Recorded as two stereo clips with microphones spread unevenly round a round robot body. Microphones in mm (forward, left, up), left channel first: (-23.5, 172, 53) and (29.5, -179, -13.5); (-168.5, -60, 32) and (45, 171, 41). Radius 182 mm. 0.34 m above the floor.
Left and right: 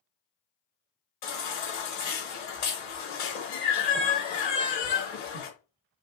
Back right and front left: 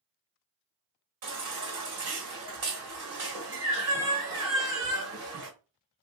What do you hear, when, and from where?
1.2 s a baby crying: 85° left, 1.7 m